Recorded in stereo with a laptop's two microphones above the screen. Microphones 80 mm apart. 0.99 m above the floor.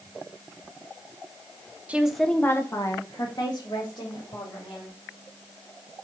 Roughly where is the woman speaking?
Centre.